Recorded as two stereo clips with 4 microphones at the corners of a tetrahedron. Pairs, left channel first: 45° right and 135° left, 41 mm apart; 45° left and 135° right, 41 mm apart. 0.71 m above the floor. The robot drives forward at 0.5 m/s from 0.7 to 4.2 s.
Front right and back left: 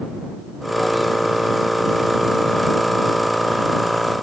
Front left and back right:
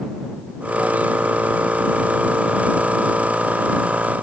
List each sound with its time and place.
Only background noise.